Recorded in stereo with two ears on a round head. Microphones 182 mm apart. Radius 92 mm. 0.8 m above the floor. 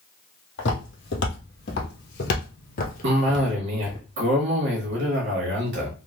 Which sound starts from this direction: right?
A cough, at 3.0 s.